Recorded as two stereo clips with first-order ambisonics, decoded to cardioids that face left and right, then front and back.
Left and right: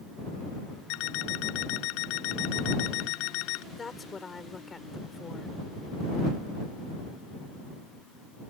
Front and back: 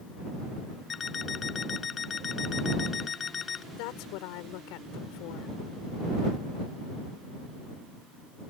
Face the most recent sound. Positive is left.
turn(degrees=15)